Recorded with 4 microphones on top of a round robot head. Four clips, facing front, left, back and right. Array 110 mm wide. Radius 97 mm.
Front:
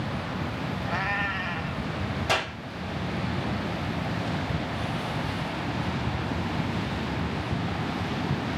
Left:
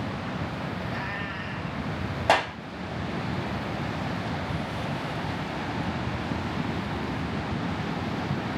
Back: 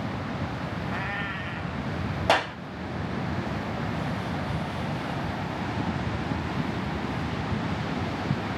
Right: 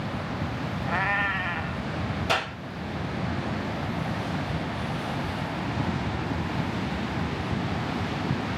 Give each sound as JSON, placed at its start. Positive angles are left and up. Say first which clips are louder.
{"t": 0.9, "sound": "a cat meowing", "louder": "right 6 dB, front 5 dB", "azimuth_deg": -65, "distance_m": 0.7}
{"t": 2.3, "sound": "a clap", "louder": "left 7 dB, back 6 dB", "azimuth_deg": 125, "distance_m": 3.0}